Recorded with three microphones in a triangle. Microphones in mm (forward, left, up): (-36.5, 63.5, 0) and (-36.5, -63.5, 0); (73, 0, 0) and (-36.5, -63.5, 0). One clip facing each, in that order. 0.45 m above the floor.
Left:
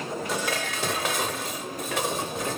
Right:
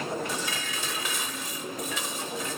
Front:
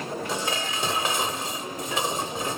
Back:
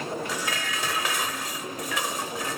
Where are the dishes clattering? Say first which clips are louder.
Left 5 dB, front 2 dB; 90° left.